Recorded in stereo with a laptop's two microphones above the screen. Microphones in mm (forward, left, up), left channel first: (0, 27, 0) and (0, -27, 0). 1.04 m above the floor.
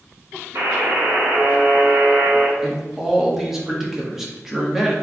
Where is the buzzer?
70° right (ahead or behind), 1.4 m.